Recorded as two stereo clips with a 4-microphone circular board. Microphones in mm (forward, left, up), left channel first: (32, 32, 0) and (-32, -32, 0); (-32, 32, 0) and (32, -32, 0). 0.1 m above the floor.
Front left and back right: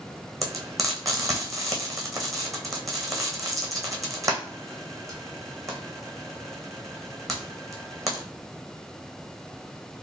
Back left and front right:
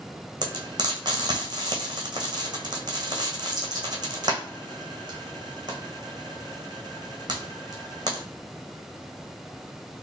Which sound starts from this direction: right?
Frying, at 0.4 s.